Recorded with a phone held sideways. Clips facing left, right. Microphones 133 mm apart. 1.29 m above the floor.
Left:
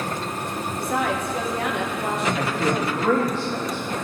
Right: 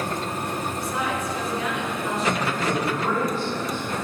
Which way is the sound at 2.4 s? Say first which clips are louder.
Left 2 dB; 90° left.